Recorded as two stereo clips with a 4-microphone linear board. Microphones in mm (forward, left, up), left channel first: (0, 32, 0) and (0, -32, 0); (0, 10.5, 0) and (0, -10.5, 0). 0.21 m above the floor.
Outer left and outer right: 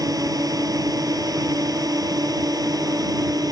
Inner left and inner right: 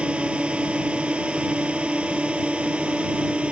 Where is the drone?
70° right (ahead or behind); by 3.5 s 75° right (ahead or behind).